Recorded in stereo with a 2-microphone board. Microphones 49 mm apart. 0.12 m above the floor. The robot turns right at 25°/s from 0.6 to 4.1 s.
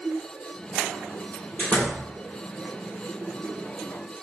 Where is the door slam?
40° left (ahead or behind), 2.5 m; by 2.0 s 30° left (ahead or behind), 2.5 m.